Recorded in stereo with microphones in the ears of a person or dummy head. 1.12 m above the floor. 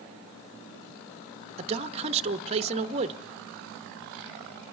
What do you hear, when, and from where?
1.6 s a man speaking: 30° right (ahead or behind), 0.6 m